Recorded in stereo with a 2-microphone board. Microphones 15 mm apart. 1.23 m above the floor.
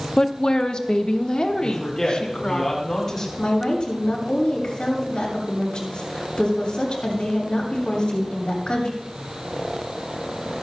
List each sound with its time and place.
0.2 s a woman speaking: 50° left (ahead or behind), 0.8 m; by 2.6 s 65° left (ahead or behind), 2 m
1.6 s a woman speaking: 30° left (ahead or behind), 8.5 m
3.4 s a woman speaking: 70° left (ahead or behind), 6 m